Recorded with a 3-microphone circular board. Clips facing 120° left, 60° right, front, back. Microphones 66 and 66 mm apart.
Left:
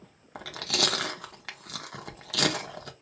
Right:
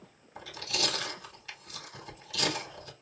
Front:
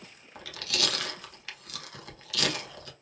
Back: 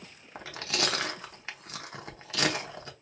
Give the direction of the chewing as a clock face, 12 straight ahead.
8 o'clock.